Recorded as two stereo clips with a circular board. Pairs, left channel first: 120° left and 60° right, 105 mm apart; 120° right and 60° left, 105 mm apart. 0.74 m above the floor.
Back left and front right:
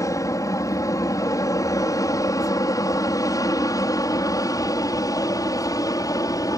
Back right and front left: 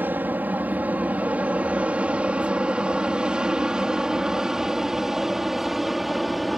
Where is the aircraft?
115° left; by 6.6 s 150° left.